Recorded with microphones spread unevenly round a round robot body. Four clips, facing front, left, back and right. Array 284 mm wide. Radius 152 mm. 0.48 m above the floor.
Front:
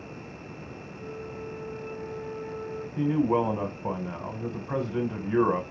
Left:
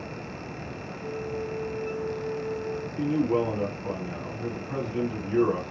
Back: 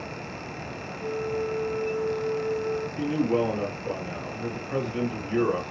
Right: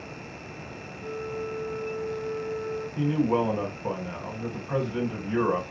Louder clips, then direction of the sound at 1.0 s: Even, back 10 dB; 55° right.